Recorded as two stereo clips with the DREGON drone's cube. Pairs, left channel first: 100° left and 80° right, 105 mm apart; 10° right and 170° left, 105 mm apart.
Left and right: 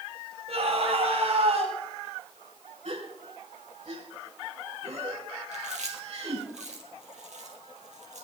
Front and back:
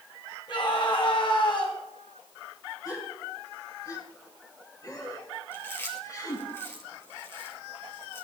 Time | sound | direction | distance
0.5 | a scream | 50° right | 10 m
2.9 | a gasp | 65° right | 3.5 m
5.5 | chewing | 80° right | 3 m